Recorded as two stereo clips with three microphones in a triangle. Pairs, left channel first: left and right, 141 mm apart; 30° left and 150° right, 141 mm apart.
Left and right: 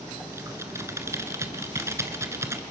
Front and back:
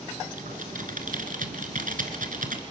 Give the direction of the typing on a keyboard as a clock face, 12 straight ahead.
5 o'clock.